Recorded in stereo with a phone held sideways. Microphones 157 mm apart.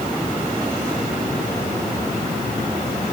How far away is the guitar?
I don't hear a guitar.